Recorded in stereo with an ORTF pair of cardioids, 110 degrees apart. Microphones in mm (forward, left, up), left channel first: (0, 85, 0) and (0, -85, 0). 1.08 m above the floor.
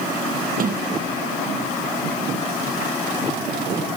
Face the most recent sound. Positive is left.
turn(degrees=-55)